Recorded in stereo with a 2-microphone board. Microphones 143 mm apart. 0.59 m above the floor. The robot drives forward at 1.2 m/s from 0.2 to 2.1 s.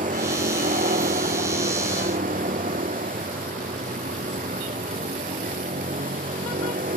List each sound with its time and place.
0.0 s a vehicle: 70° right (ahead or behind); by 7.0 s 75° right (ahead or behind)